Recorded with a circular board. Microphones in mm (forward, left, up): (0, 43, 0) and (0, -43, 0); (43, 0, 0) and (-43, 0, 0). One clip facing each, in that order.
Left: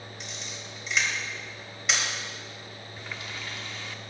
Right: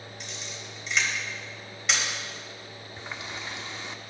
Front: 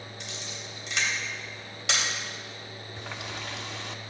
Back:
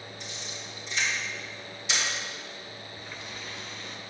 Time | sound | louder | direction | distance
0.2 | a camera shutter | right 1 dB, front 1 dB | straight ahead | 4 m
3.0 | a running tap | right 2 dB, front 7 dB | 20° right | 0.8 m